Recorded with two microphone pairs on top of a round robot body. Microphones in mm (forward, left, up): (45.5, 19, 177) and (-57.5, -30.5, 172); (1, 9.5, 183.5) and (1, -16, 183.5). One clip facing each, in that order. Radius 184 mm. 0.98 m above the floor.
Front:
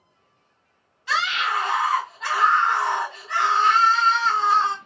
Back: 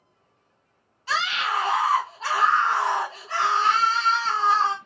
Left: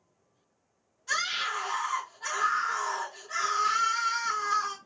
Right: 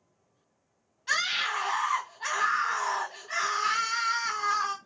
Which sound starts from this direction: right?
A scream, at 1.1 s.